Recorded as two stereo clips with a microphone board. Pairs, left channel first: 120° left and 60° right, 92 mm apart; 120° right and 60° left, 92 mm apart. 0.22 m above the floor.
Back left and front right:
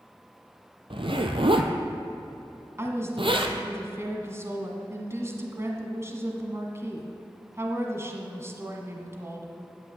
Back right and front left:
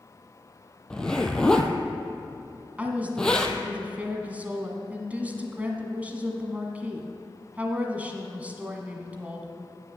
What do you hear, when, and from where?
0.9 s a zipper: 40° right, 1.2 m
2.8 s a woman speaking: 10° right, 1.9 m